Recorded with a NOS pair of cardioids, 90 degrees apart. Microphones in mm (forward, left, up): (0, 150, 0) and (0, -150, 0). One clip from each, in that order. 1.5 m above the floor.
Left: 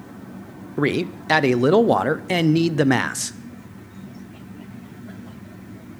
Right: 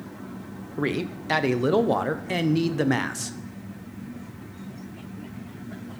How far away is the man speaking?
About 0.6 m.